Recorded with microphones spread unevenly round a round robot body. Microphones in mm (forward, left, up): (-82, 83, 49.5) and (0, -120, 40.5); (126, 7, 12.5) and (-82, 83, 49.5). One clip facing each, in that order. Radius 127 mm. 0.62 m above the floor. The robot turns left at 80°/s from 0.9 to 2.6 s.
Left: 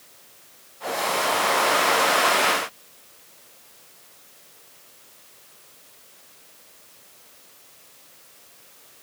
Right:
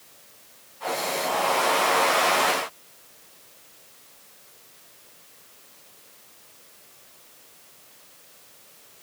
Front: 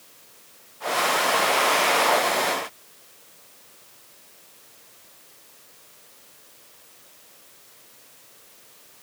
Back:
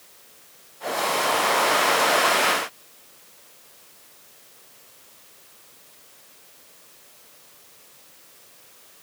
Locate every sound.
Only background noise.